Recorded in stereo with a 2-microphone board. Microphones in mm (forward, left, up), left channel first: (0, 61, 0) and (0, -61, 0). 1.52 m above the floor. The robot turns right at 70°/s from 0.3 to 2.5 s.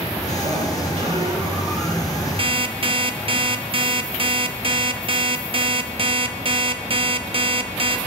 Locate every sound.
0.3 s a sliding door: 95° right, 6 m; by 2.3 s 45° left, 6 m
2.4 s an alarm clock: 45° right (ahead or behind), 0.9 m